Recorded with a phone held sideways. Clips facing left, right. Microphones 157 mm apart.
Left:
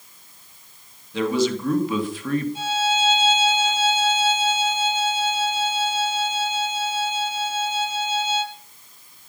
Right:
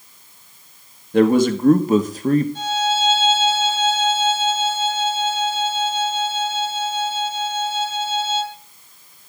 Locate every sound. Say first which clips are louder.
1.1 s a man speaking: right 7 dB; 55° right (ahead or behind), 1.6 m; by 2.5 s 35° right (ahead or behind), 1.6 m
2.5 s a violin: right 2 dB; 10° left (ahead or behind), 4.5 m